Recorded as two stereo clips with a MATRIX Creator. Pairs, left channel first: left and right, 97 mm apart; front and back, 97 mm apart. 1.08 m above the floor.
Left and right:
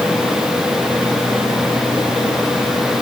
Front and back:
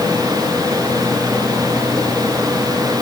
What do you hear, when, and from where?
Only background noise.